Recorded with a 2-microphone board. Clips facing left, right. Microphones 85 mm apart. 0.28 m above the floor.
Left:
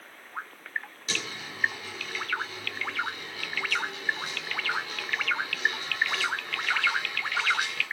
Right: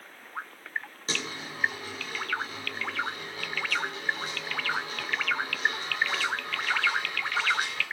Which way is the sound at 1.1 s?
35° right (ahead or behind).